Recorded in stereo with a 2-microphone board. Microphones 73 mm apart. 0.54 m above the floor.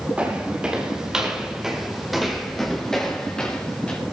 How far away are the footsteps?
About 4 m.